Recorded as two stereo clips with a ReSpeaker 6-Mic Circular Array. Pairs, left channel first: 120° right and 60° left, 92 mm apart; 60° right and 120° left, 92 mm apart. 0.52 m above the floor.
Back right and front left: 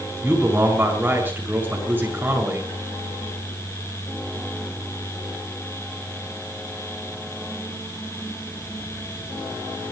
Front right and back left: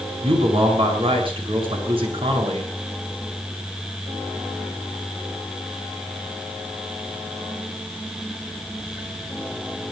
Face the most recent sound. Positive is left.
turn(degrees=130)